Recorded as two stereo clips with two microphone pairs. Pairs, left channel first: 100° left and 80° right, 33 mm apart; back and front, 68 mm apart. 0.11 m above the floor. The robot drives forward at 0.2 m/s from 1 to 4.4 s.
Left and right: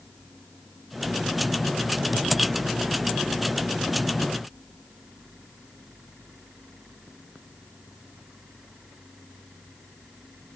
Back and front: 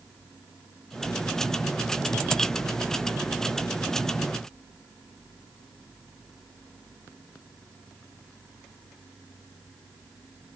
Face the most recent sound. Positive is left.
No sound to turn to.